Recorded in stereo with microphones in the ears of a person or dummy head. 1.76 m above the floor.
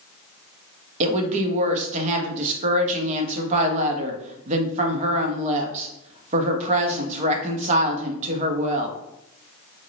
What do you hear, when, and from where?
1.0 s a woman speaking: 35° right (ahead or behind), 0.6 m